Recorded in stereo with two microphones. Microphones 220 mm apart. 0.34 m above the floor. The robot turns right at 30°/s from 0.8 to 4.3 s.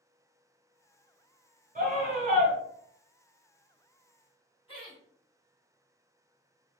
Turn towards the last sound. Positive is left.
turn(degrees=25)  # may be behind; listen again after turning